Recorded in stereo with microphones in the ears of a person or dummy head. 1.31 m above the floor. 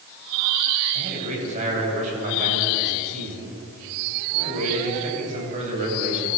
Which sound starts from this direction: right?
A man speaking, at 0.9 s.